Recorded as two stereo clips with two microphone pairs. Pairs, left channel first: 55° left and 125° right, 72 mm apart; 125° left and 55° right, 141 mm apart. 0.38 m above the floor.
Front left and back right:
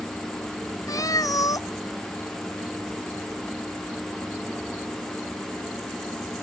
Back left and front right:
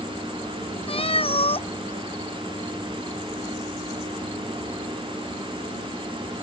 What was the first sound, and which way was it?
A cat meowing, 85° left.